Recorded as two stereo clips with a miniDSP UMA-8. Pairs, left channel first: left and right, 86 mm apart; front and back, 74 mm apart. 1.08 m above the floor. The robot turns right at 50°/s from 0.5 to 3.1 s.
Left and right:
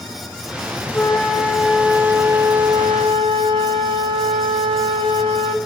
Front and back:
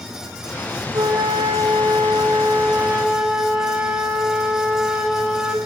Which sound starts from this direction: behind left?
A flute, at 0.9 s.